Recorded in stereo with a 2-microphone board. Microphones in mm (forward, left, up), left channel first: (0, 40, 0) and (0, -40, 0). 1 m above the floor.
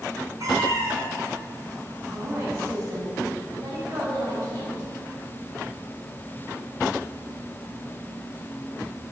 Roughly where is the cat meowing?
Right.